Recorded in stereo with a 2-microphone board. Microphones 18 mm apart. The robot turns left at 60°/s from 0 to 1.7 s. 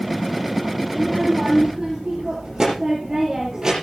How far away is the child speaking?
About 6.5 m.